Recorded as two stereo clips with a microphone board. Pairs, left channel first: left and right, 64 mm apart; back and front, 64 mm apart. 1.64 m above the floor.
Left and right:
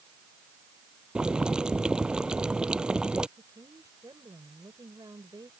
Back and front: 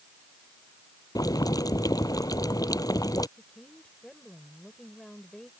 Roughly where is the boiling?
Behind.